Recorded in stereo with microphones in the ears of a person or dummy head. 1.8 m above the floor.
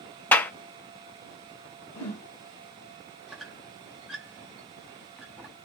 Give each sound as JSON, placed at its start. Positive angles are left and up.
{"t": 0.3, "sound": "a clap", "side_deg": 15, "distance_m": 0.6}
{"t": 1.9, "sound": "a whoosh", "side_deg": 20, "distance_m": 2.5}
{"t": 3.3, "sound": "a squeak", "side_deg": 5, "distance_m": 0.7}